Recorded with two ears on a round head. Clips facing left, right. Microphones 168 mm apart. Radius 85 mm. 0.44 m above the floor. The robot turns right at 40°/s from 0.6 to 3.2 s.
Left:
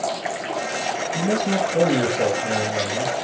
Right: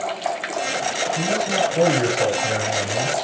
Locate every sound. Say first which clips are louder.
1.1 s a man speaking: left 2 dB; 105° left, 8.5 m; by 3.1 s 175° right, 8.5 m